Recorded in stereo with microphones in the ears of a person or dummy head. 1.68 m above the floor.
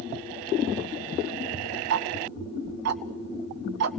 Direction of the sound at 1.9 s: 70° right (ahead or behind).